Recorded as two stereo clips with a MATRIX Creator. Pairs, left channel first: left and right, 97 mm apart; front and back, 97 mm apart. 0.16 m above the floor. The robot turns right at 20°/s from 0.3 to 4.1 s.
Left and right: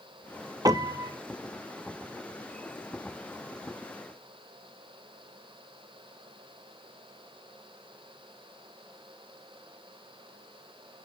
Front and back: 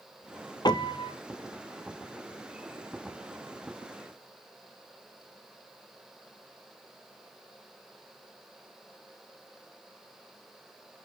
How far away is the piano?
About 0.7 m.